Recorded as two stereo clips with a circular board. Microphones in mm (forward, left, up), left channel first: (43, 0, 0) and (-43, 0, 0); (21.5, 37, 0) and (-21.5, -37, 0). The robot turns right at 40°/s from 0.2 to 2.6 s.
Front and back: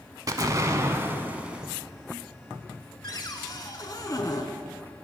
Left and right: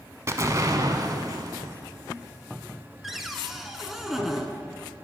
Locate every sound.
0.3 s an explosion: 160° right, 0.5 m; by 1.8 s 100° right, 0.5 m
3.0 s a cupboard door: 35° right, 0.6 m